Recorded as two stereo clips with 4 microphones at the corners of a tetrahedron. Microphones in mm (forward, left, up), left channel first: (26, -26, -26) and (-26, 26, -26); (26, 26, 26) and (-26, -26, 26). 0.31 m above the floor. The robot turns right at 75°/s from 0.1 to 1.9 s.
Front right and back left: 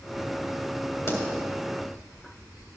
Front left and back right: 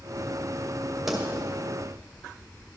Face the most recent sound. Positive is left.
turn(degrees=10)